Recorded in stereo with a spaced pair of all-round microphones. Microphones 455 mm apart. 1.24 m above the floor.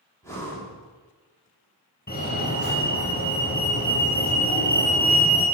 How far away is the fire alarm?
About 1.4 m.